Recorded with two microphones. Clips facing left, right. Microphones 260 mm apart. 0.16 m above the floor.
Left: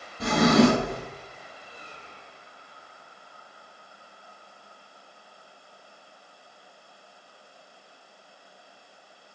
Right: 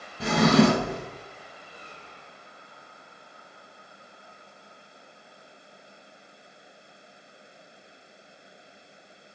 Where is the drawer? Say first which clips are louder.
Left 1 dB; 5° right (ahead or behind), 0.9 m.